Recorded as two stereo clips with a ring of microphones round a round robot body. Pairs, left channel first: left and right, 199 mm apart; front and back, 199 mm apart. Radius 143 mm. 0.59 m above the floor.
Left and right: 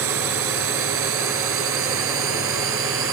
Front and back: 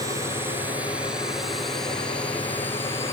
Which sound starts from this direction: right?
A drone, at 0.0 s.